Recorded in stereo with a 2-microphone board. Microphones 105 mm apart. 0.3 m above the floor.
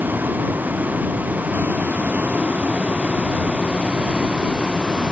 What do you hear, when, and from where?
0.0 s a vehicle: 15° right (ahead or behind); by 5.1 s 10° right (ahead or behind)